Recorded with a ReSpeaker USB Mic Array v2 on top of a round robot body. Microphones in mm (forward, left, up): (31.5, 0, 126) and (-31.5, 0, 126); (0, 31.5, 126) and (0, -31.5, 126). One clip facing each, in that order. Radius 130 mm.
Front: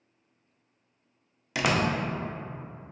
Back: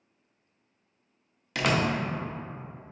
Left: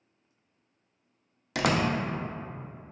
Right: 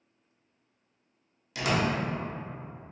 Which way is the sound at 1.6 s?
80° left.